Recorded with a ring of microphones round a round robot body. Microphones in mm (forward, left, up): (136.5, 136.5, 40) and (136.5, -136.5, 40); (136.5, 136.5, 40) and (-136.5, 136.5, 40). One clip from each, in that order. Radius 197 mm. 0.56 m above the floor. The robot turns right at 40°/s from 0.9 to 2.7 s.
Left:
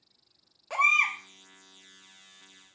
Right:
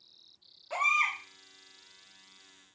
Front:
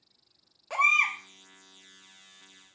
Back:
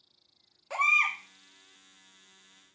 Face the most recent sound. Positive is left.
turn(degrees=160)